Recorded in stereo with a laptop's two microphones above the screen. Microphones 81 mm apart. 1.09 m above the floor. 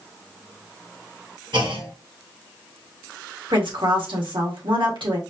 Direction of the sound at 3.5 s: 85° right.